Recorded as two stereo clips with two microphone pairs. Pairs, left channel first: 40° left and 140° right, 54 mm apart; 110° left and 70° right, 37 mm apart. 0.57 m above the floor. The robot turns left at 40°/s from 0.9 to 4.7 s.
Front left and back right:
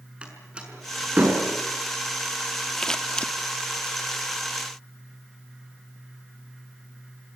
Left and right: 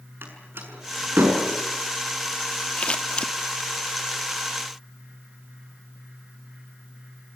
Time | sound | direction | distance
0.2 | a door slam | 70° right | 6 m
2.8 | scissors | 110° left | 1.1 m